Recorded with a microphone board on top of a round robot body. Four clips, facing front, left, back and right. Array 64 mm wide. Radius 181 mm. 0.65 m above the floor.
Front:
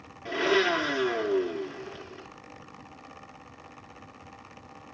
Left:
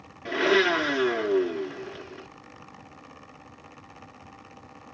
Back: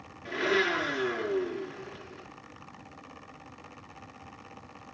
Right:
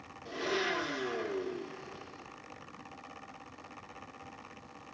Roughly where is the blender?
Left.